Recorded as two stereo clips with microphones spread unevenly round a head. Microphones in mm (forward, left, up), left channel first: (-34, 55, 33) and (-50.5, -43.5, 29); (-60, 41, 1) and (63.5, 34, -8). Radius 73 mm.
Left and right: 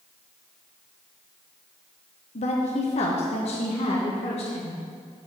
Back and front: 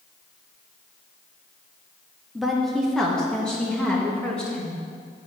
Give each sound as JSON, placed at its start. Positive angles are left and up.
{"t": 2.4, "sound": "a woman speaking", "azimuth_deg": 85, "distance_m": 0.9}